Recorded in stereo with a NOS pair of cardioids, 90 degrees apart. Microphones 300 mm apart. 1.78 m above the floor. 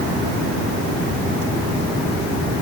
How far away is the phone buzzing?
No phone buzzing in this recording.